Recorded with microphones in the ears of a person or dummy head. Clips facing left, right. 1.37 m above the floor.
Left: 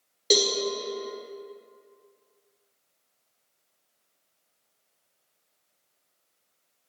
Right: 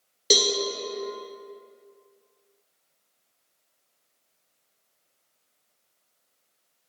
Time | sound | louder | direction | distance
0.3 | a cowbell | even | 15° right (ahead or behind) | 0.6 m